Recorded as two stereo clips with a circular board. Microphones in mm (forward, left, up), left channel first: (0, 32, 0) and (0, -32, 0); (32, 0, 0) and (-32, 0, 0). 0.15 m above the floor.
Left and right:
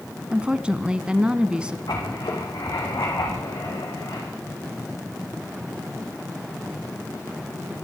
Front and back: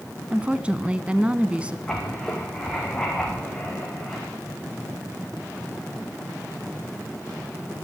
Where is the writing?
85° left, 6 m.